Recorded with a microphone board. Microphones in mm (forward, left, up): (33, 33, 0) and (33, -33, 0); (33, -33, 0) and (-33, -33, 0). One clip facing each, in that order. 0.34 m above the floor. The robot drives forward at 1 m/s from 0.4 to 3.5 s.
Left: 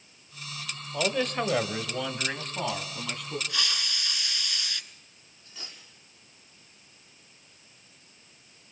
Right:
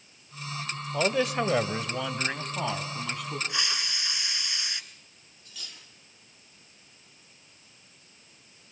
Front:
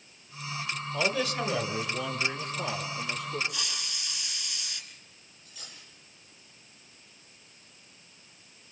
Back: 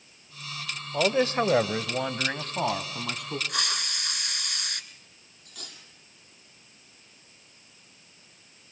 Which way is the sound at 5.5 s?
155° left.